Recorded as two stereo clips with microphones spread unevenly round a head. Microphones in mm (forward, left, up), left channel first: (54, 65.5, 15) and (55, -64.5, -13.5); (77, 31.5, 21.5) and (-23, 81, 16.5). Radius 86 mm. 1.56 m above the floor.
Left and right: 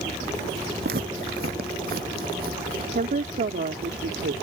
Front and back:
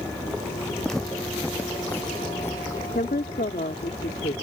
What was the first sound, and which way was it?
Footsteps, 115° right.